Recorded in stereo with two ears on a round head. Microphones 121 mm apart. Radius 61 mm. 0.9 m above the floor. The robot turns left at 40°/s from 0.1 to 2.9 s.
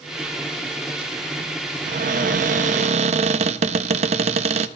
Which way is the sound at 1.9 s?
75° right.